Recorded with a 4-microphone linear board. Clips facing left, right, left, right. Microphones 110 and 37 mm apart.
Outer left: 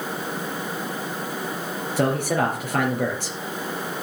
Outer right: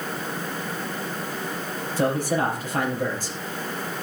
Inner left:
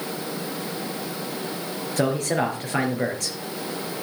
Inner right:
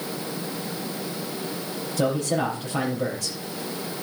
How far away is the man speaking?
About 4 m.